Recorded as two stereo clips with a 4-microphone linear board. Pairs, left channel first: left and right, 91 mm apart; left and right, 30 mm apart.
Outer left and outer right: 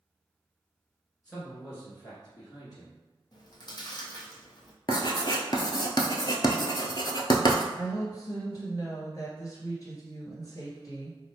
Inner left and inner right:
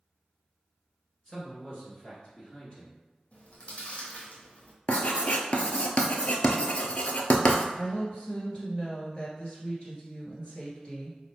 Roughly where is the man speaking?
Centre.